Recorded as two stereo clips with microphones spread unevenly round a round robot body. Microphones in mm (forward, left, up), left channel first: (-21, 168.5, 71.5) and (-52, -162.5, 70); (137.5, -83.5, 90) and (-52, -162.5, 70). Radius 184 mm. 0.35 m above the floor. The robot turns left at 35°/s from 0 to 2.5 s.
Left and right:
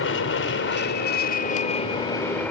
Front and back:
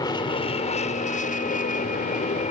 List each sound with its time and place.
0.0 s an aircraft: 90° left; by 2.5 s straight ahead